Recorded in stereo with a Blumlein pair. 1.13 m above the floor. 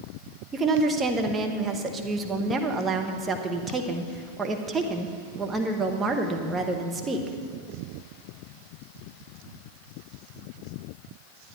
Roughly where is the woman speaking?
Ahead.